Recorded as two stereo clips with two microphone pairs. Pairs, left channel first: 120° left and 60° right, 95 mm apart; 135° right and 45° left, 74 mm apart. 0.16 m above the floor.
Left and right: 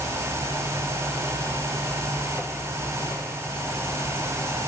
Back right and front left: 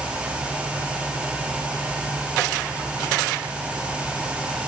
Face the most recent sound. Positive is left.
No sound to turn to.